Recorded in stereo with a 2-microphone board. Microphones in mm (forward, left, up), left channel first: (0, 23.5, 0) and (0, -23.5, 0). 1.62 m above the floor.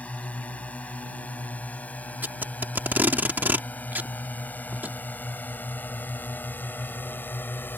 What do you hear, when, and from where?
0.0 s a drone: 30° left (ahead or behind); by 7.8 s 50° left (ahead or behind)
2.2 s tape being pulled: 45° right (ahead or behind)